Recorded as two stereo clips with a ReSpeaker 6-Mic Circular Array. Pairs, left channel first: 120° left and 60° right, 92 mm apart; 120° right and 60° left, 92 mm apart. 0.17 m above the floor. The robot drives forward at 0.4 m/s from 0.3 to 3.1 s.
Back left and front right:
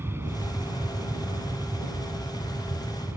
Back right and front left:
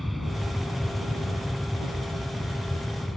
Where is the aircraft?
30° right; by 3.2 s 40° right.